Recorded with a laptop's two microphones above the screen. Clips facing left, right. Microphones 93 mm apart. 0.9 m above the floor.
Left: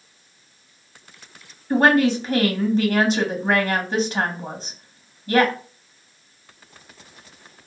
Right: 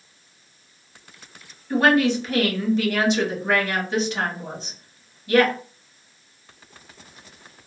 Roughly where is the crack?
No crack in this recording.